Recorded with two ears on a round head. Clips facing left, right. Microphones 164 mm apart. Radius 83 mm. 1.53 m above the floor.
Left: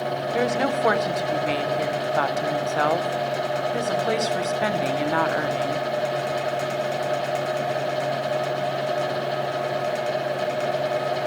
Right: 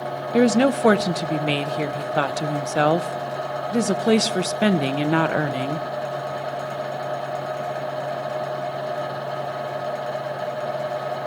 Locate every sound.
0.3 s a woman speaking: 35° right (ahead or behind), 0.5 m